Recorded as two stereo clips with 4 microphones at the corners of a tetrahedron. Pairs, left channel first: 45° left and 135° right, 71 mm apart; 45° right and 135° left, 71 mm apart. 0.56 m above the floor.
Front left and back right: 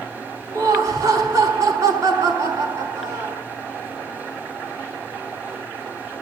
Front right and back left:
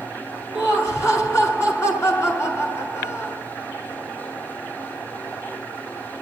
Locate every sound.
0.5 s laughter: 90° right, 6.5 m